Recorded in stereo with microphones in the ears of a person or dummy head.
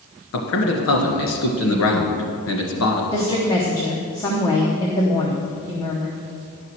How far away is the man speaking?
About 1.8 m.